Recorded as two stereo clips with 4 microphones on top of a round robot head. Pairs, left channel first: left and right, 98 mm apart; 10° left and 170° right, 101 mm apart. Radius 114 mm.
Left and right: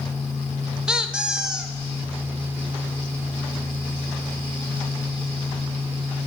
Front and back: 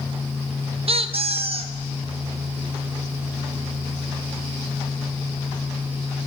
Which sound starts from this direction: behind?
A squeak, at 0.9 s.